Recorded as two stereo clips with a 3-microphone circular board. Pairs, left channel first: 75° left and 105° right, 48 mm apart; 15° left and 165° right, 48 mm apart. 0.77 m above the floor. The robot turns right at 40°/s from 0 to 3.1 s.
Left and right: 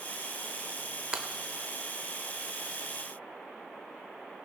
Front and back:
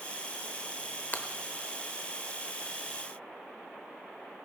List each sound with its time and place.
1.1 s breaking glass: 35° right, 0.7 m; by 1.3 s 30° right, 0.7 m